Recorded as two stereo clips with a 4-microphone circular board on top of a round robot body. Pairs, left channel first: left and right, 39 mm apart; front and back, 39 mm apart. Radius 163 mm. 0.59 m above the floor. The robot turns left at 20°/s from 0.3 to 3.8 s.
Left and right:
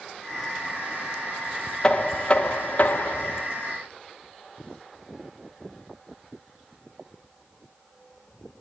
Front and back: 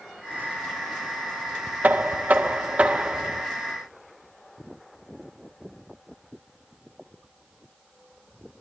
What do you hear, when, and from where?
1.8 s knocking: 160° left, 1.6 m; by 3.5 s 125° left, 1.6 m